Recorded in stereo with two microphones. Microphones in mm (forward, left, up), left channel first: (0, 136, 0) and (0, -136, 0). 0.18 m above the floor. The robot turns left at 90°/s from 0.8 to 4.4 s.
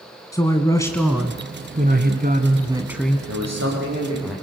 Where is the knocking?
No knocking in this recording.